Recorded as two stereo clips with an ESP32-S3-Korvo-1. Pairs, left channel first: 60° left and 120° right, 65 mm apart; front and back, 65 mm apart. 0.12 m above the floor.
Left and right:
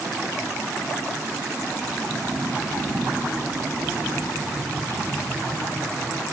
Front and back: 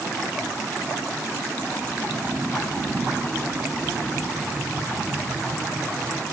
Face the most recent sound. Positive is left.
No sound to turn to.